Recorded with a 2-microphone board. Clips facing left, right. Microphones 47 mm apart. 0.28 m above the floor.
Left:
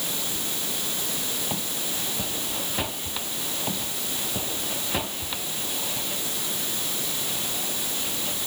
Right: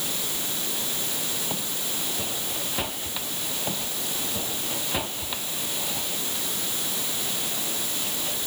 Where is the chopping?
No chopping in this recording.